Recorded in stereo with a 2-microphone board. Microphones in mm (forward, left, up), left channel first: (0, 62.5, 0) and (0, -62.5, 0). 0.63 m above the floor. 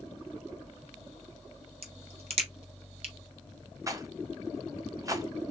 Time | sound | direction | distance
1.8 | a crack | 55° right (ahead or behind) | 0.7 m
3.9 | a rattle | 25° right (ahead or behind) | 0.5 m